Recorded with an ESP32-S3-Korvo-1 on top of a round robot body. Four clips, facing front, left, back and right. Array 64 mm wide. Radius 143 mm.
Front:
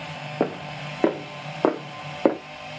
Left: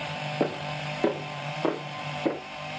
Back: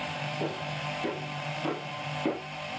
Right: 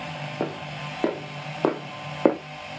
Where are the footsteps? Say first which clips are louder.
Left 2 dB, front 10 dB; 5° left, 1.7 m; by 2.4 s 55° right, 1.0 m.